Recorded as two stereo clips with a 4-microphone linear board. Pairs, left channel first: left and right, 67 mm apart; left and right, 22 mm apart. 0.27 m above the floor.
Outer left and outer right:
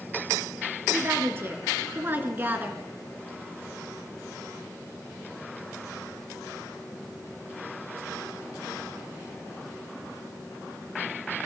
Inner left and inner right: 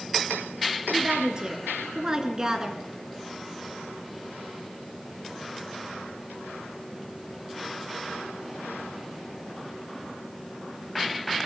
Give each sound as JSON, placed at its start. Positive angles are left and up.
{"t": 0.9, "sound": "a woman speaking", "side_deg": -35, "distance_m": 4.5}